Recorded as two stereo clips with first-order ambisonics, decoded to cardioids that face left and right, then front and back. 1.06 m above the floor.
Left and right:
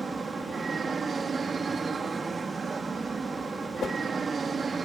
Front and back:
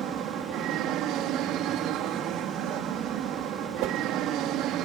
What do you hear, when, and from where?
0.0 s an aircraft: 155° right
3.8 s a whoosh: 155° left